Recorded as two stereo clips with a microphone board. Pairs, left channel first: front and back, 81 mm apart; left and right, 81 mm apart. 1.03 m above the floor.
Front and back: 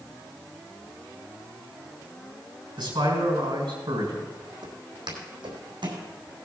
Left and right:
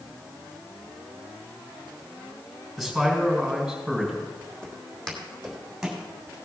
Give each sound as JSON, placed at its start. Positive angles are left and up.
{"t": 2.8, "sound": "a man speaking", "azimuth_deg": 180, "distance_m": 4.0}
{"t": 4.6, "sound": "footsteps", "azimuth_deg": 165, "distance_m": 3.0}